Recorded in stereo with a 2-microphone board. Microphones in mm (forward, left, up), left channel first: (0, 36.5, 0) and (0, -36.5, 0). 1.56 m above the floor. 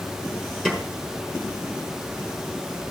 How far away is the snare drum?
About 4.5 m.